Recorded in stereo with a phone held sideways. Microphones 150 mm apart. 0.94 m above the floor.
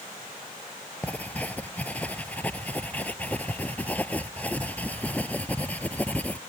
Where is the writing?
10° left (ahead or behind).